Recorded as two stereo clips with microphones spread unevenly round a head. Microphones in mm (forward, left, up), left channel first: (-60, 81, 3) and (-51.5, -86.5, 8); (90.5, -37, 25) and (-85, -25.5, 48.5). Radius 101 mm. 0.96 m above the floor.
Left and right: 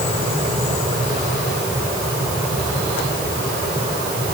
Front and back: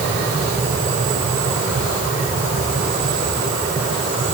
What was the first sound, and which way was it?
Only background noise.